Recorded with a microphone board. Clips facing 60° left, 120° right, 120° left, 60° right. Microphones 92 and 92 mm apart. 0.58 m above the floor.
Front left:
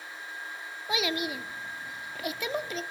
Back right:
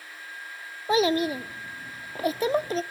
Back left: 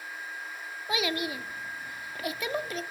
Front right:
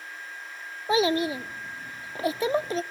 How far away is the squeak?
No squeak in this recording.